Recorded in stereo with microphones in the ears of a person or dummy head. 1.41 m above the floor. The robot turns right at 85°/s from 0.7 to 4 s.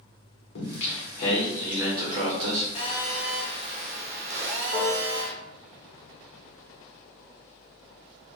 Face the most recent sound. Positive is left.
turn(degrees=20)  # may be behind; listen again after turning